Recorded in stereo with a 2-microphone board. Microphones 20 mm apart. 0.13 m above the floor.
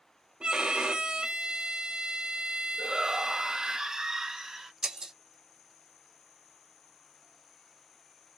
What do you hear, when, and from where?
0.4 s a violin: 65° right (ahead or behind), 1.3 m
2.8 s a shout: 35° right (ahead or behind), 2 m
4.8 s breaking glass: 35° right (ahead or behind), 1.8 m